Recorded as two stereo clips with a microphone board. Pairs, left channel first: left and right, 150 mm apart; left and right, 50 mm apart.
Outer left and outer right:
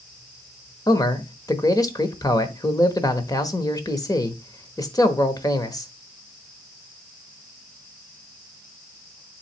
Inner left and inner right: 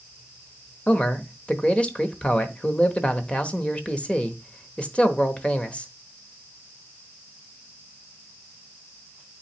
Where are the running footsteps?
I don't hear running footsteps.